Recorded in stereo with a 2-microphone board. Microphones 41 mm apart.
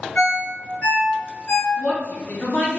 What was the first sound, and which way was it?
A ringtone, 45° left (ahead or behind).